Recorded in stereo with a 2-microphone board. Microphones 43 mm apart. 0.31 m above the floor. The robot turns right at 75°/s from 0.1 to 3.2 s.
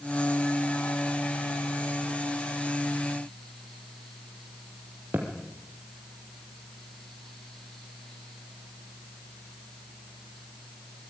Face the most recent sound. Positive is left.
turn(degrees=-50)  # may be behind; listen again after turning